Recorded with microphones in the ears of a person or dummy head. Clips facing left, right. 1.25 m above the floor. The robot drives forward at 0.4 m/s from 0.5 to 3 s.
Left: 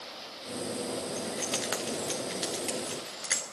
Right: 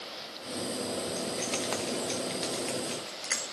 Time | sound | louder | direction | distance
1.2 | keys jangling | right 1 dB | 10° left (ahead or behind) | 0.6 m